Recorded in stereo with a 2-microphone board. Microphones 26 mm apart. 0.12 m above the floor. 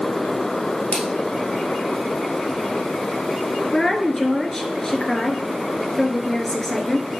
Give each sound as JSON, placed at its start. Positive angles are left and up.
{"t": 0.9, "sound": "a splash", "side_deg": 65, "distance_m": 3.0}
{"t": 3.7, "sound": "a woman speaking", "side_deg": 25, "distance_m": 1.6}